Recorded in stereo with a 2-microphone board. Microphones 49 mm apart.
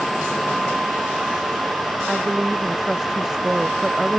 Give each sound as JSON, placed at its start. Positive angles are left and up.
{"t": 2.1, "sound": "a woman speaking", "side_deg": -10}